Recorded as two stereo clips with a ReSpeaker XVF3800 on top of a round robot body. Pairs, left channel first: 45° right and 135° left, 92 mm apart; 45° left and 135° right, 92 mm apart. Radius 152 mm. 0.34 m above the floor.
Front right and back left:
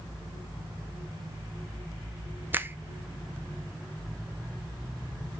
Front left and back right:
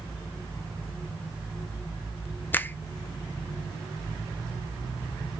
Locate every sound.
2.5 s a finger snap: 90° left, 0.7 m